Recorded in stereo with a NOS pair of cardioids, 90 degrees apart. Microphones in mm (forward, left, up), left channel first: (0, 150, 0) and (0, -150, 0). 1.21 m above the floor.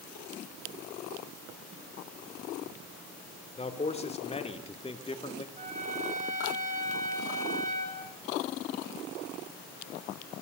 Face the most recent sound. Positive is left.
turn(degrees=-25)